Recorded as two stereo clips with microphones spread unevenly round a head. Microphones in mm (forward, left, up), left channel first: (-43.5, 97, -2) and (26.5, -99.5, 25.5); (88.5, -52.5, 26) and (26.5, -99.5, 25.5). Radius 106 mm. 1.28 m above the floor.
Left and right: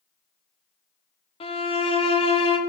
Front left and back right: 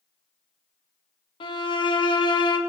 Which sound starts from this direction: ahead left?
A violin, at 1.4 s.